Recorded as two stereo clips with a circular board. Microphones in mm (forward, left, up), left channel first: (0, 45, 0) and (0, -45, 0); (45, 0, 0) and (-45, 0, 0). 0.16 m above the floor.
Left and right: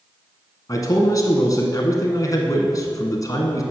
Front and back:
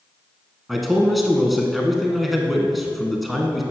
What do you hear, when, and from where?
0.7 s a man speaking: 90° left, 1.3 m